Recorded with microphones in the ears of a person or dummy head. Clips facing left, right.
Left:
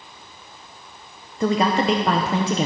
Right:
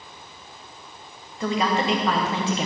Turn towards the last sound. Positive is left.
turn(degrees=35)  # may be behind; listen again after turning